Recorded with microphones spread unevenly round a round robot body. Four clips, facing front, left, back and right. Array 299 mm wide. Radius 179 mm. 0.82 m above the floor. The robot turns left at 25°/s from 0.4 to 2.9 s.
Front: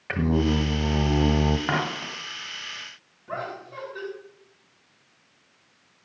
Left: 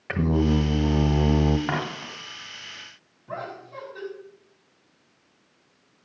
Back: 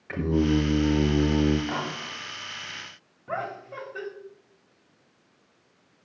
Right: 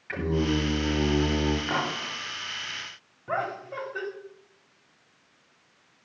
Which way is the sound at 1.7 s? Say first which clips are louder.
Even, front 4 dB; 25° left.